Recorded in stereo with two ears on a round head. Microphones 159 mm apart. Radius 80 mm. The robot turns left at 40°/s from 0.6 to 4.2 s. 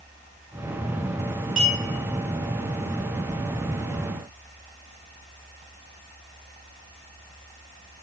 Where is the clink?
Centre (ahead or behind), 1.4 m; by 1.8 s 5° left (ahead or behind), 1.4 m.